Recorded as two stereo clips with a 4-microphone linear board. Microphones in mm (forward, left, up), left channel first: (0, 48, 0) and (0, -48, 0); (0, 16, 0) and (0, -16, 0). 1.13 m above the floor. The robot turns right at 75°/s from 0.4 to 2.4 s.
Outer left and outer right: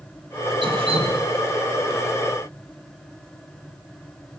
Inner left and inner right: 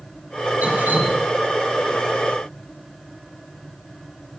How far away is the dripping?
About 1.8 m.